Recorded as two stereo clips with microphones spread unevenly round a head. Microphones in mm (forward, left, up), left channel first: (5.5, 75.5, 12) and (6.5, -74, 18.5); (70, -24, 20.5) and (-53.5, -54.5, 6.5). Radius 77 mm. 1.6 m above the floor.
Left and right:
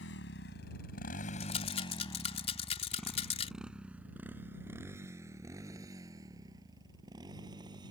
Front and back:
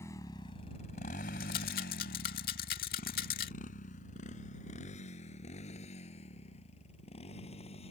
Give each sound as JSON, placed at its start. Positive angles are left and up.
{"t": 0.0, "sound": "a motorcycle", "azimuth_deg": 85}
{"t": 1.4, "sound": "a rattle", "azimuth_deg": 40}